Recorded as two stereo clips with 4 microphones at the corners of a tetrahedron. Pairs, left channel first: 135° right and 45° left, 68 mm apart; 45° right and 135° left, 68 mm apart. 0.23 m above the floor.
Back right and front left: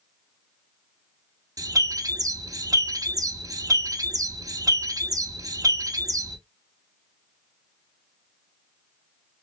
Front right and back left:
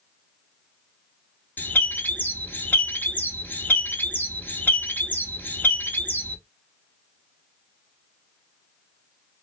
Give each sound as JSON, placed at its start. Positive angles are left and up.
{"t": 1.6, "sound": "a bird", "azimuth_deg": 15, "distance_m": 0.6}